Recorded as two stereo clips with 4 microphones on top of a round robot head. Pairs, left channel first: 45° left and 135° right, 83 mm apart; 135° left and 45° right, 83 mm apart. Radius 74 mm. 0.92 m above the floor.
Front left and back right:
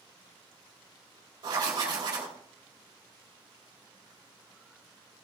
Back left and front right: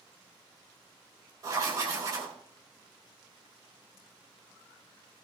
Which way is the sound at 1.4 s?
95° right.